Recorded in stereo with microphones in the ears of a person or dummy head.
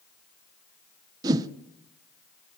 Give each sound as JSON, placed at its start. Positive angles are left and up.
{"t": 1.2, "sound": "a whoosh", "side_deg": -20, "distance_m": 0.6}